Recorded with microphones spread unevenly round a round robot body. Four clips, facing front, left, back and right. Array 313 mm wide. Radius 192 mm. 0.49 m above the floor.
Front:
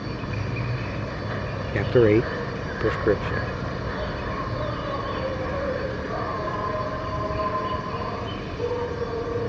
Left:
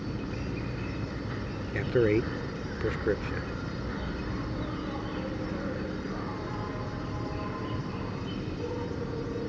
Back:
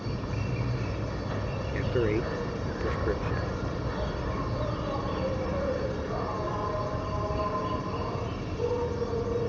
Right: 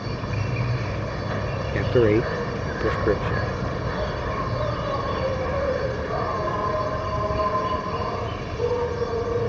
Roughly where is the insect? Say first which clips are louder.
Right 5 dB, front 3 dB; right.